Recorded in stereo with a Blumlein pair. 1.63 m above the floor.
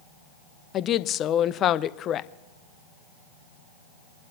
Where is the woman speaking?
30° left, 0.6 m.